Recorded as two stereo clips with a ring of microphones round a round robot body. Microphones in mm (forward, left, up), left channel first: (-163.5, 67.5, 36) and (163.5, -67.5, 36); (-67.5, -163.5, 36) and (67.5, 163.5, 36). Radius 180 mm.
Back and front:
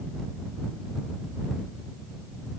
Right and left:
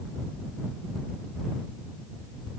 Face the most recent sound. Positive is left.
No sound to turn to.